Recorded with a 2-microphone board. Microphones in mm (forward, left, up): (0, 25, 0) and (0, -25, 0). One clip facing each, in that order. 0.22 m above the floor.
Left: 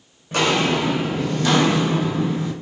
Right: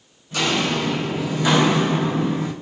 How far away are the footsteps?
About 0.8 m.